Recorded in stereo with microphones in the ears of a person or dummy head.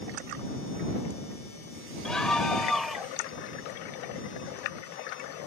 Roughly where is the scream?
Centre.